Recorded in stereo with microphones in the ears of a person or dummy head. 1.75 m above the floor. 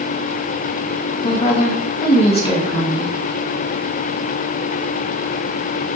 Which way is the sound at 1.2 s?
35° left (ahead or behind).